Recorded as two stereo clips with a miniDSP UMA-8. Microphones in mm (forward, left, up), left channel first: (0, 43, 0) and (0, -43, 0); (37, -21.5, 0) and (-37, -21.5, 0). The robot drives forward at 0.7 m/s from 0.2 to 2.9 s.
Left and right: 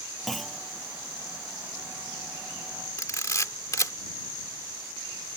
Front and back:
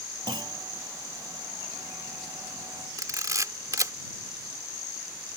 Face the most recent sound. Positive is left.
turn(degrees=140)